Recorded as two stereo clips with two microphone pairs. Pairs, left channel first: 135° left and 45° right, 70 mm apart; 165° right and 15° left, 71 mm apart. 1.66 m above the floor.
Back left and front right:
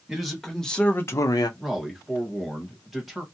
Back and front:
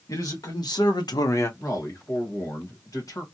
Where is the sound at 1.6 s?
130° right, 1.5 m.